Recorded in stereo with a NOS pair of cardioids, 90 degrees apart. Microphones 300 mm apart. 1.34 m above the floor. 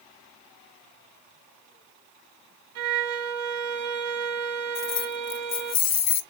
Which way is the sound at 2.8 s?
70° right.